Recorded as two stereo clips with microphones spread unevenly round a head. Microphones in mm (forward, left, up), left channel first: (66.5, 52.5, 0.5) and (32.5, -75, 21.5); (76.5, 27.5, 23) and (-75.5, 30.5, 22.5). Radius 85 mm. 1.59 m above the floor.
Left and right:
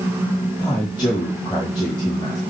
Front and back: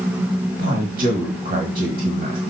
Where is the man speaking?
160° left, 1.6 m.